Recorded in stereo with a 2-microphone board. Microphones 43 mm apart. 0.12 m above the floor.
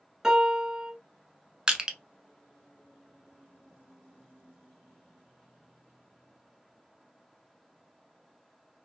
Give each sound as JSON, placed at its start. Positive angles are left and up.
{"t": 0.2, "sound": "a piano", "side_deg": -15, "distance_m": 0.8}
{"t": 1.7, "sound": "crushing", "side_deg": -20, "distance_m": 0.6}